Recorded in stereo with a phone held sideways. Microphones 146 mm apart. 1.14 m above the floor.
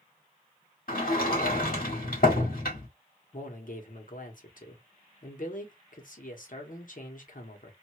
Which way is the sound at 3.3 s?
65° left (ahead or behind).